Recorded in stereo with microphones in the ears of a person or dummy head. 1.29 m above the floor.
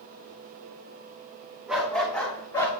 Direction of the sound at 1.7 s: Centre (ahead or behind).